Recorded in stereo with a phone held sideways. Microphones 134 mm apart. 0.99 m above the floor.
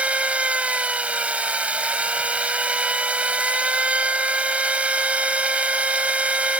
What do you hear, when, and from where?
0.0 s a machine running: 10° right (ahead or behind)